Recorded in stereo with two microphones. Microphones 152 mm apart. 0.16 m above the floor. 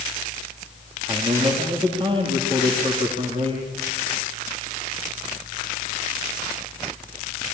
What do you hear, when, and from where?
1.1 s a man speaking: 35° right (ahead or behind), 4.5 m